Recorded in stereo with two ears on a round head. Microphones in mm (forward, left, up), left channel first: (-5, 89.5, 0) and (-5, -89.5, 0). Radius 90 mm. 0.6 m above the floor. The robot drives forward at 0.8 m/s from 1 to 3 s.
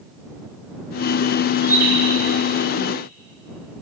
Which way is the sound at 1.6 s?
10° right (ahead or behind).